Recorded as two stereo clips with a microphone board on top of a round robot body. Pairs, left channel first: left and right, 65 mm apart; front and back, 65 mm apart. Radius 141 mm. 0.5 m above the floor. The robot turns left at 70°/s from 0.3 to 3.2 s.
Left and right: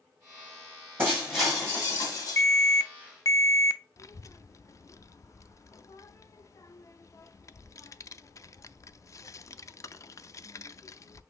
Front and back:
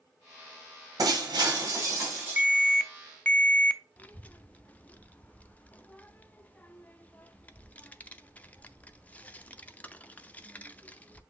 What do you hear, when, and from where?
1.0 s breaking glass: 150° right, 1.8 m; by 2.4 s 110° left, 1.8 m
2.4 s an alarm: 130° left, 0.5 m; by 3.8 s 70° left, 0.5 m
4.0 s a child speaking: 65° left, 0.5 m